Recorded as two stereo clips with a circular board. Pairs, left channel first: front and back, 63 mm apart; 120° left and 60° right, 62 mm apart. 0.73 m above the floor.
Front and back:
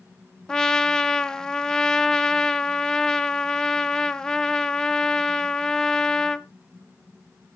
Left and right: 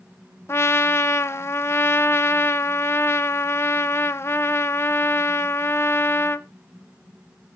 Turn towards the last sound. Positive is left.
turn(degrees=80)